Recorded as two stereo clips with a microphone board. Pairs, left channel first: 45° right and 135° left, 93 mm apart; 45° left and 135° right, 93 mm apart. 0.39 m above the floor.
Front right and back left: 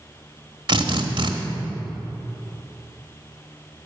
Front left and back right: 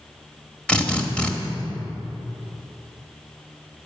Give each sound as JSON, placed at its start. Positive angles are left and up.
{"t": 0.7, "sound": "a drill", "azimuth_deg": 120, "distance_m": 1.2}